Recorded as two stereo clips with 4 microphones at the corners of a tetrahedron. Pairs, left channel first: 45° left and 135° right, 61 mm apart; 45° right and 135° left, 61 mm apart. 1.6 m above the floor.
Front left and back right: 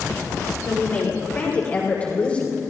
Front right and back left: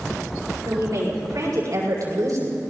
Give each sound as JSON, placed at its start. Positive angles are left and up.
{"t": 0.7, "sound": "a woman speaking", "azimuth_deg": 105, "distance_m": 7.5}